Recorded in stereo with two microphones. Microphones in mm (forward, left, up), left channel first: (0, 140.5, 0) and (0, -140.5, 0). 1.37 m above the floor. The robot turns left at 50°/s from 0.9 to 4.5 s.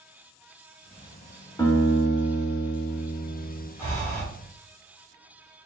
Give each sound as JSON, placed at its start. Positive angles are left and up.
{"t": 1.6, "sound": "a guitar", "azimuth_deg": 160, "distance_m": 1.3}
{"t": 3.8, "sound": "breathing", "side_deg": -15, "distance_m": 2.5}